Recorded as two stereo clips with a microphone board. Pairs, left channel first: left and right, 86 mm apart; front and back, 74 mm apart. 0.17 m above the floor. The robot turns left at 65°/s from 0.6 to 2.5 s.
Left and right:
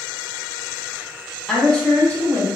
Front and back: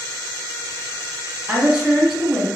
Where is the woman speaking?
160° left, 1.0 m; by 2.5 s 95° left, 1.0 m.